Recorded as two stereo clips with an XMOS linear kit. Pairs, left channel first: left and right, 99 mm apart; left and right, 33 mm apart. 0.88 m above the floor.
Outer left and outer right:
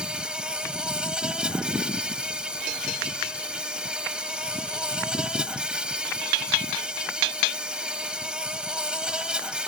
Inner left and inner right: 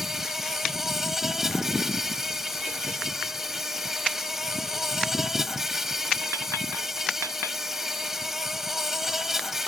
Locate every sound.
0.0 s an insect: 10° right (ahead or behind)